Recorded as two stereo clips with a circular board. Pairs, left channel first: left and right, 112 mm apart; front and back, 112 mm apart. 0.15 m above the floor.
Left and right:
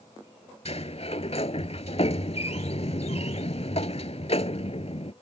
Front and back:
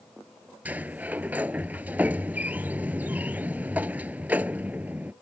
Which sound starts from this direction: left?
A sliding door, at 0.7 s.